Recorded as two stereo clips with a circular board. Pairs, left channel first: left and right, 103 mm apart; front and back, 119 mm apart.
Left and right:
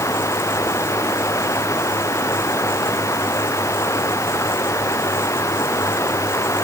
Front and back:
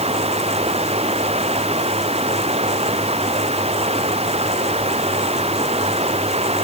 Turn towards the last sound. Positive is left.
turn(degrees=150)